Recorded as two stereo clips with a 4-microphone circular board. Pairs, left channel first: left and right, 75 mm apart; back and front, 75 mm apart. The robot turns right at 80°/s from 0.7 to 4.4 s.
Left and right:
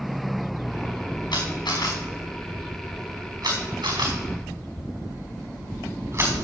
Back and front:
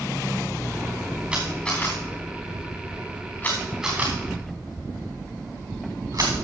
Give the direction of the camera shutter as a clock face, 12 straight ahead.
10 o'clock.